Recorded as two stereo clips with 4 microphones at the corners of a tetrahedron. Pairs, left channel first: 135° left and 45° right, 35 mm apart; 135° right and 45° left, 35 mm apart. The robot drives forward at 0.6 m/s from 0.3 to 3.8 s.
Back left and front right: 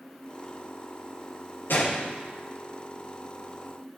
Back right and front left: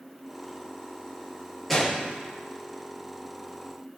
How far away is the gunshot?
About 4 m.